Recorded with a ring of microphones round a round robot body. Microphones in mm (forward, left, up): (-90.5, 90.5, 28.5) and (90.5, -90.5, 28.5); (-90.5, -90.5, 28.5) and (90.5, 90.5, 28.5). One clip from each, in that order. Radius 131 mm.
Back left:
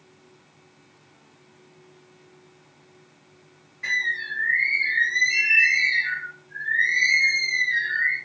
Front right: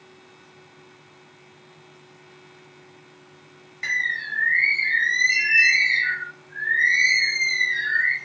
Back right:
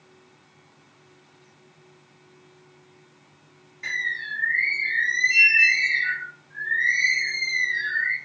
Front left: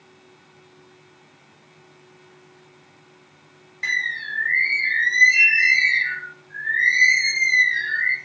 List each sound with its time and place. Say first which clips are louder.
3.8 s a bird: even, front left 4 dB; 5° right, 1.0 m